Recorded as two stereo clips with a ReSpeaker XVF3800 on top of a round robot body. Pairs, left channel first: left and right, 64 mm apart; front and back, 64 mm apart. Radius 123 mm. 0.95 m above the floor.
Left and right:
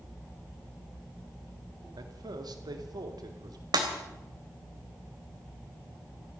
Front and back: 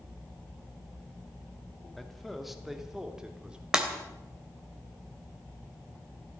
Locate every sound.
2.0 s a man speaking: 85° right, 2 m; by 3.6 s 105° right, 3 m
3.7 s breaking glass: 100° right, 3 m